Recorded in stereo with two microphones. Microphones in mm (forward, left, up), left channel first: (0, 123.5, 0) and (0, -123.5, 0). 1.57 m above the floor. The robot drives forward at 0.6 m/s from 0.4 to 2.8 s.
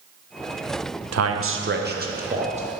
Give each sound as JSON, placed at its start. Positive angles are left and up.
{"t": 1.1, "sound": "a man speaking", "side_deg": -70, "distance_m": 0.5}